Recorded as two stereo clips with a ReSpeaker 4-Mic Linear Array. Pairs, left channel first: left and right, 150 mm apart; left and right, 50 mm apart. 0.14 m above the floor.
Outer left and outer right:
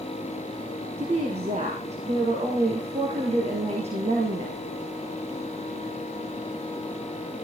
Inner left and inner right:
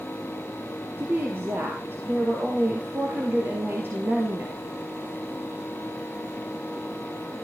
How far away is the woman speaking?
About 3 m.